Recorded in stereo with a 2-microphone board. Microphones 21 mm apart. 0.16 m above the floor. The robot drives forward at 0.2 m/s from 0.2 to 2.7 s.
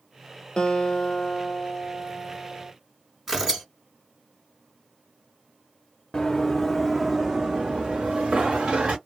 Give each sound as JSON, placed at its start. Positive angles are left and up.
{"t": 0.6, "sound": "a guitar", "side_deg": 50, "distance_m": 0.8}
{"t": 3.3, "sound": "tearing paper", "side_deg": -20, "distance_m": 2.0}
{"t": 6.1, "sound": "running footsteps", "side_deg": 35, "distance_m": 0.8}